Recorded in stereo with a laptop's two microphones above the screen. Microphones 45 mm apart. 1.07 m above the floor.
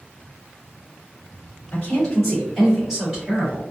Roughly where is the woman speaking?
Left.